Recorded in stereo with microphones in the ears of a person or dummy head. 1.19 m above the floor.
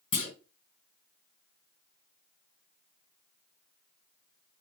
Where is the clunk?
35° left (ahead or behind), 1.4 m.